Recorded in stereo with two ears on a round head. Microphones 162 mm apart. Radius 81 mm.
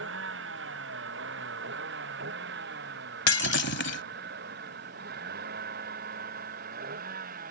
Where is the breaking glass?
65° left (ahead or behind).